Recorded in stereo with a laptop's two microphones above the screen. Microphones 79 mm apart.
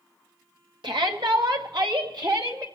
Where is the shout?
70° right (ahead or behind), 1.8 m; by 2.6 s 65° right (ahead or behind), 2.5 m.